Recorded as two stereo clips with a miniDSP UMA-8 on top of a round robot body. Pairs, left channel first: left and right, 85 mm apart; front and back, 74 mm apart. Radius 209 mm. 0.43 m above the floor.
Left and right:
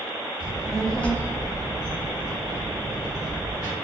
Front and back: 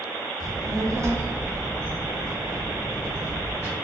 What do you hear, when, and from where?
0.4 s a child speaking: 165° right, 0.9 m; by 3.8 s 50° left, 1.9 m